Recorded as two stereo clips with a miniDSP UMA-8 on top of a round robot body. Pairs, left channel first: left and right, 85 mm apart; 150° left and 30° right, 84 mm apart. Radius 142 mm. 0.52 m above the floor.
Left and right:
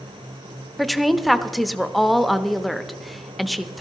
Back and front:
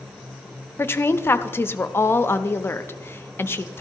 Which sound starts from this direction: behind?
A woman speaking, at 0.8 s.